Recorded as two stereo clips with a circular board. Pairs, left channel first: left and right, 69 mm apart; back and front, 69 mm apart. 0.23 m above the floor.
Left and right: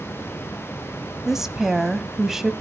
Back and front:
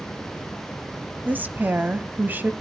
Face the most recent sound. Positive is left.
turn(degrees=-15)